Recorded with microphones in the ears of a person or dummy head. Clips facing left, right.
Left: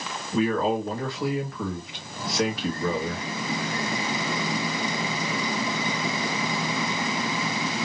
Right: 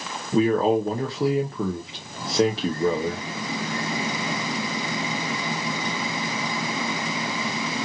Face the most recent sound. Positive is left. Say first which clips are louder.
# right 4 dB
turn(degrees=-25)  # may be behind; listen again after turning